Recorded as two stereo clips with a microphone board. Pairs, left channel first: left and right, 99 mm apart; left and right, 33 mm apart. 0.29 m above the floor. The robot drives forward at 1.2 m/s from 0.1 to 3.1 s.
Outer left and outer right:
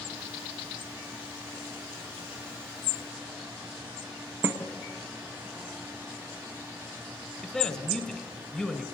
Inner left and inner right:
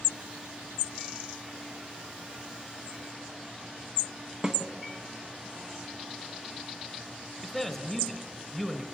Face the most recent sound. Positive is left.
turn(degrees=5)  # may be behind; listen again after turning